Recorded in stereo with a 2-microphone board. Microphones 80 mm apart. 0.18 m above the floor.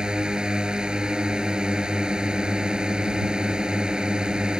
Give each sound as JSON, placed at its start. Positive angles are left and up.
{"t": 0.0, "sound": "a drone", "side_deg": -10}